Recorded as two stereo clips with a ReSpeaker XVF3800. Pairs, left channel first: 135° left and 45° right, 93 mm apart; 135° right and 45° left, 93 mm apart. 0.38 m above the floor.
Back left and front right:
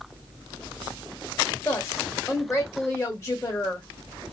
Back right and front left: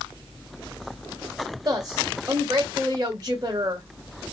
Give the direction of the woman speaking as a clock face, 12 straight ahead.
9 o'clock.